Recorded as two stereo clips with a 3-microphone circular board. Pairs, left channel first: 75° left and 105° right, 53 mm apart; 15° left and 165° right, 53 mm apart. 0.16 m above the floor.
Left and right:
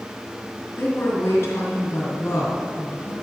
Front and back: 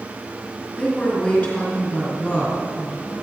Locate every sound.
0.8 s a woman speaking: 90° left, 2 m